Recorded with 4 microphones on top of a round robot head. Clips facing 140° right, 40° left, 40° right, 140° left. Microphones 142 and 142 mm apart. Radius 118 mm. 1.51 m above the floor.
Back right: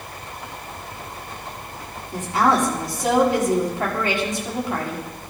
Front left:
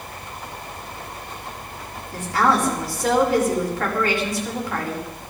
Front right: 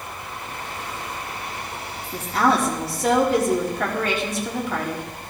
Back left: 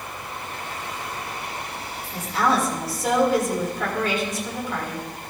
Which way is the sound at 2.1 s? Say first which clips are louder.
Back right 1 dB, front right 2 dB; 70° right.